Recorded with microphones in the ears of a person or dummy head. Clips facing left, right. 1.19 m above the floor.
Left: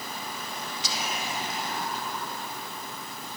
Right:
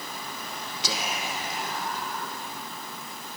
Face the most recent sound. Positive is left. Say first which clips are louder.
# right 2 dB
turn(degrees=-55)  # may be behind; listen again after turning